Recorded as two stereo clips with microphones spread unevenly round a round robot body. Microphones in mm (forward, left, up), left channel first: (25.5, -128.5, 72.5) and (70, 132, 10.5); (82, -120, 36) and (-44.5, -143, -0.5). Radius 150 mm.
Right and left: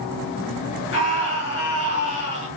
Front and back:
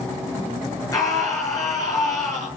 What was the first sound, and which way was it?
A scream, 55° right.